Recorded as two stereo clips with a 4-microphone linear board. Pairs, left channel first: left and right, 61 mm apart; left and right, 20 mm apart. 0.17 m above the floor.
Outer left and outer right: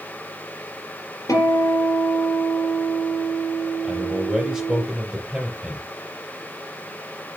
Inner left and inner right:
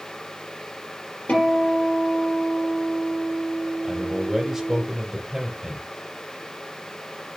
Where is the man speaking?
10° right (ahead or behind), 3.5 m.